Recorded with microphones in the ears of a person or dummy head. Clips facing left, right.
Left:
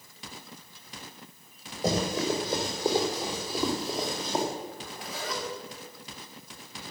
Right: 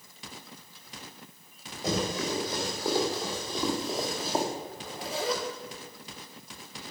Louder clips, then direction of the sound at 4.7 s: Right 4 dB; 30° right (ahead or behind).